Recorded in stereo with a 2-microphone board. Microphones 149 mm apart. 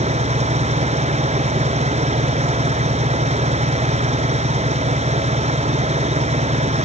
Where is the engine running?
45° right (ahead or behind).